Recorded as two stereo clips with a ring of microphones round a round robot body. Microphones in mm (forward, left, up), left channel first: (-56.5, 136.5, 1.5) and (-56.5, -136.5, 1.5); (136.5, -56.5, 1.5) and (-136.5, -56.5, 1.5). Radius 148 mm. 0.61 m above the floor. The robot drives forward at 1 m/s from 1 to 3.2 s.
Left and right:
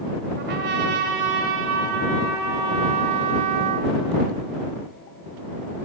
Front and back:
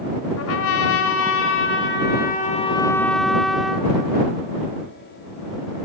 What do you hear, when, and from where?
0.4 s a trumpet: 35° right, 2.5 m; by 3.9 s 90° right, 1.6 m